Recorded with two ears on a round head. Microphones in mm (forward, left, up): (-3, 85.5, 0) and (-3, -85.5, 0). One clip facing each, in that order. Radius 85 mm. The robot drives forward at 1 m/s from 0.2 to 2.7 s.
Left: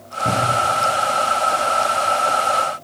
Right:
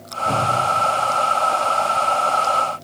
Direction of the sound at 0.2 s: 50° left (ahead or behind).